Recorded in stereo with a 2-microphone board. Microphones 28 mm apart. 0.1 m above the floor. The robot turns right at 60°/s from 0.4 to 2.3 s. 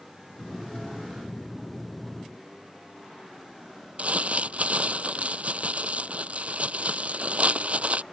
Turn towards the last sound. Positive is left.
turn(degrees=-55)  # may be behind; listen again after turning